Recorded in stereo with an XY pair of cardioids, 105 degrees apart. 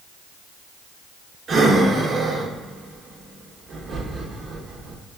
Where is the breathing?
50° right, 0.9 m.